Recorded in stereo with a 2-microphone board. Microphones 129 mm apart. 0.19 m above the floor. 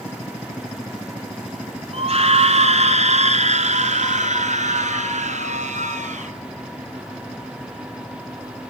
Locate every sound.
1.9 s a scream: 50° right (ahead or behind), 2 m; by 6.3 s 65° right (ahead or behind), 4 m